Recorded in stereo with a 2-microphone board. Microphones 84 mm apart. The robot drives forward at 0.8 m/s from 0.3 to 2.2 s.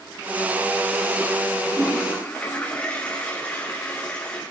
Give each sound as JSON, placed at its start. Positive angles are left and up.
{"t": 1.6, "sound": "a toilet flushing", "side_deg": 20, "distance_m": 9.5}